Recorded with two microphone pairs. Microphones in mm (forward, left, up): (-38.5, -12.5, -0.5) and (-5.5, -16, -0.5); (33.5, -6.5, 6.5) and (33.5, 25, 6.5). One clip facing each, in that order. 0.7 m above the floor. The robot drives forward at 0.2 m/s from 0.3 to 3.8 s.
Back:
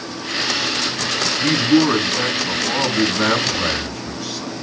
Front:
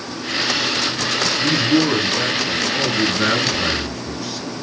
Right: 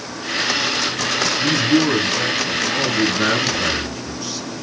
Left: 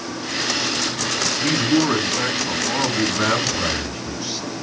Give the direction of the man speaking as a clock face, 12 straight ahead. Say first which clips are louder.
Back 3 dB, right 1 dB; 7 o'clock.